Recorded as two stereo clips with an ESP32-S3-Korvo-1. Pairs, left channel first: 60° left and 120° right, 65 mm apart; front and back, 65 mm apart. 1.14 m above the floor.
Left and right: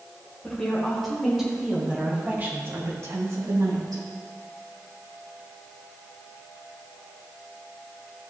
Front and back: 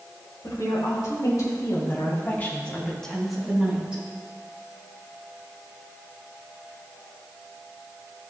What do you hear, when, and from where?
0.4 s a woman speaking: 20° right, 3 m; by 4.0 s 110° right, 2.5 m